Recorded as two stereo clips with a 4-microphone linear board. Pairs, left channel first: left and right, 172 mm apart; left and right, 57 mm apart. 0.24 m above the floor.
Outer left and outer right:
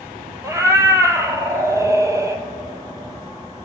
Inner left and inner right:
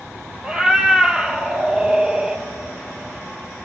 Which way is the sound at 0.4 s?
20° right (ahead or behind).